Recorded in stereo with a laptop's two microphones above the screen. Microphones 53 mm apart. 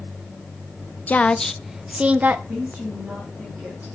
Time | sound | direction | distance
1.1 | a woman speaking | 30° left (ahead or behind) | 0.7 m
2.5 | a woman speaking | 30° right (ahead or behind) | 4 m